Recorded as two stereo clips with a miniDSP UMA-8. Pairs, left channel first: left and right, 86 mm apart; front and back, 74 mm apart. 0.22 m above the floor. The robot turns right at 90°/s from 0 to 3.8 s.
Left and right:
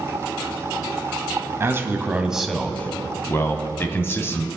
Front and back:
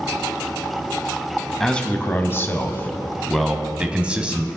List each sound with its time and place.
1.6 s a man speaking: 80° right, 1.0 m; by 4.5 s 120° left, 1.0 m